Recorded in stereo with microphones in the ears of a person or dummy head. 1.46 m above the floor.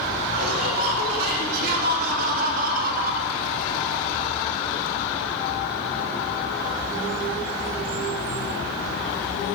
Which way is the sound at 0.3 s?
50° right (ahead or behind).